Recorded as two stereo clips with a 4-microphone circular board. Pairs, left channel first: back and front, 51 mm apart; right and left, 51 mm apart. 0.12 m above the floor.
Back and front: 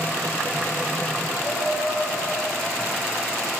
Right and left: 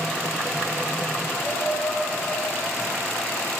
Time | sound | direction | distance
1.4 | laughter | 95° right | 9 m